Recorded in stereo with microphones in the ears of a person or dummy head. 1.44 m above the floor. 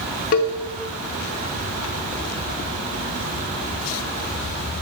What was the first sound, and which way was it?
A cowbell, 40° left (ahead or behind).